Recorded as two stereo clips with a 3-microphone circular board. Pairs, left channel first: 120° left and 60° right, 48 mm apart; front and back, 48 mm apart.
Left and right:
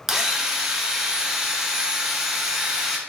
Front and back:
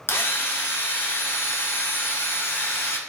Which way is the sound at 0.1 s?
20° left.